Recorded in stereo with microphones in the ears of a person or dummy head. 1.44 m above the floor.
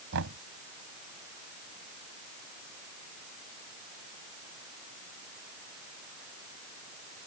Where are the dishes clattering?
No dishes clattering in this recording.